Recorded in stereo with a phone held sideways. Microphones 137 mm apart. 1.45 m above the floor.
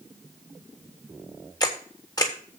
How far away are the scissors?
I don't hear scissors.